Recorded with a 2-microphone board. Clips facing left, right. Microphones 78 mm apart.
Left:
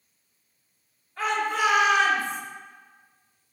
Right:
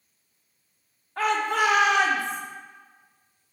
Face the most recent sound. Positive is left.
turn(degrees=-65)  # may be behind; listen again after turning